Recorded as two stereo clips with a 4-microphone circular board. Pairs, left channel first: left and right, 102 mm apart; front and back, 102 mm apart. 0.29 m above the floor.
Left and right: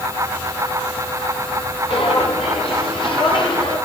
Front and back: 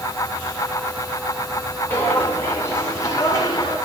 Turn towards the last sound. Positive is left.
turn(degrees=50)